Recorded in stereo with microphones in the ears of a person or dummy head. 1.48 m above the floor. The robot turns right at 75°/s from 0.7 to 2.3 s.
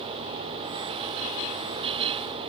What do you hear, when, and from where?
Only background noise.